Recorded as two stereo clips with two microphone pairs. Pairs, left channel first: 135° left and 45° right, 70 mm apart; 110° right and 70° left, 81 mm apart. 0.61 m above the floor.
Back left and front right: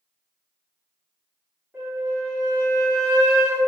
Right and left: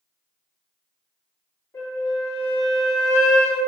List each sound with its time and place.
1.7 s a flute: 95° right, 1.8 m